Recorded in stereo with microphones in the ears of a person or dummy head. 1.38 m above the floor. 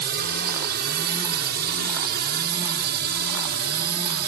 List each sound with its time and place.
0.0 s a drone: 45° right (ahead or behind); by 4.3 s 50° right (ahead or behind)